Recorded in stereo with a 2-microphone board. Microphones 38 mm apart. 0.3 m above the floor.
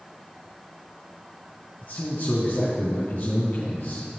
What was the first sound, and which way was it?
A man speaking, 60° left (ahead or behind).